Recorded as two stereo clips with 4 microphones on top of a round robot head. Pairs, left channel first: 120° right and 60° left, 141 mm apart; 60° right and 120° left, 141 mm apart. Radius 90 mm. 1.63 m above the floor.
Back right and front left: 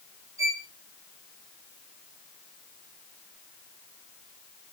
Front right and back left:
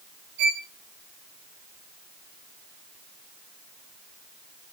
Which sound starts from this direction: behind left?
A violin, at 0.4 s.